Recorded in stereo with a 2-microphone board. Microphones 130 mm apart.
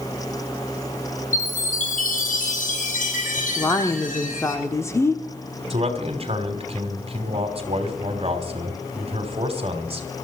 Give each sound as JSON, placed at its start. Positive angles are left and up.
{"t": 1.3, "sound": "a chime", "side_deg": 80, "distance_m": 5.0}
{"t": 3.6, "sound": "a woman speaking", "side_deg": 20, "distance_m": 1.2}
{"t": 5.7, "sound": "a man speaking", "side_deg": -45, "distance_m": 3.0}